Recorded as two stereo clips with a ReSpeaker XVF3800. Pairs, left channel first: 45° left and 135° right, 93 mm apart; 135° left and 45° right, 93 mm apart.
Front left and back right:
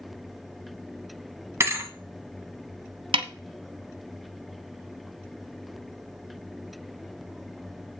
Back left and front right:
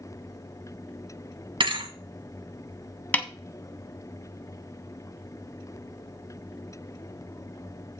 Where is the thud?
75° right, 1.6 m.